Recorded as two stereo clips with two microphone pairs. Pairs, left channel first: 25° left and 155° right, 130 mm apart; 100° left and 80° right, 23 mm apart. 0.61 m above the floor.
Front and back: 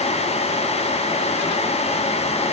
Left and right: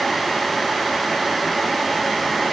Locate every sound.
Only background noise.